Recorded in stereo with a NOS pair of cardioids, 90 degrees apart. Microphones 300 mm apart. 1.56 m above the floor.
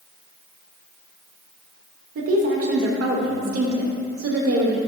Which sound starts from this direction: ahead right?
A woman speaking, at 2.1 s.